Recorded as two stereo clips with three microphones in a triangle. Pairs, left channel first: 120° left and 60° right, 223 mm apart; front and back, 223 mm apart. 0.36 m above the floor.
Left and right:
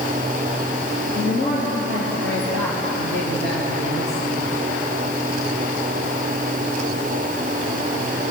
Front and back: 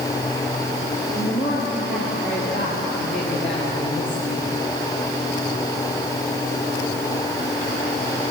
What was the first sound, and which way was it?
A woman speaking, 100° left.